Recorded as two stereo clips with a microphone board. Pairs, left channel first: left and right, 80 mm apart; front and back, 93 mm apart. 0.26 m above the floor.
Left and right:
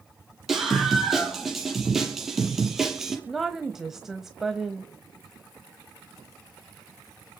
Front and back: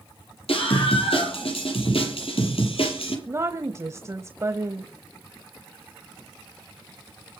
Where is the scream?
5° right, 8.5 m.